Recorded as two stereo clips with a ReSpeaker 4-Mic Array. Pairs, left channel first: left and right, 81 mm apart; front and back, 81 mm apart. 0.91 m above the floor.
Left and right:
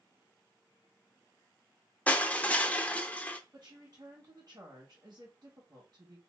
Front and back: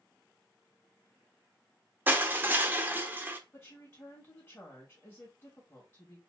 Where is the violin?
I don't hear a violin.